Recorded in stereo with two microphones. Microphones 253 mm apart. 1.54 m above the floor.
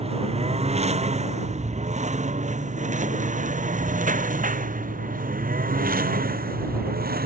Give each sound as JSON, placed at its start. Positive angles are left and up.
{"t": 0.0, "sound": "a lawn mower", "side_deg": -25}